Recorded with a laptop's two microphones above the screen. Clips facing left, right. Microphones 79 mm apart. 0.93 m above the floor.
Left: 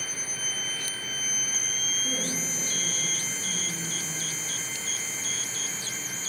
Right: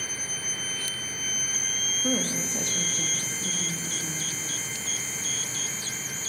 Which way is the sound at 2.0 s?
75° right (ahead or behind).